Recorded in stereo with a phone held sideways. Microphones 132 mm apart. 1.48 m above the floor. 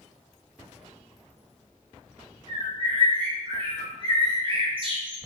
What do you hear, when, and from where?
2.5 s a bird: 40° right (ahead or behind), 0.9 m